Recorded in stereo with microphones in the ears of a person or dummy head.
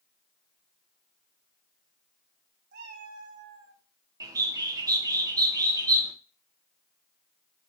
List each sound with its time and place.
2.7 s a cat meowing: 50° right (ahead or behind), 0.8 m; by 3.8 s 20° right (ahead or behind), 0.9 m
4.2 s a bird: 20° right (ahead or behind), 0.8 m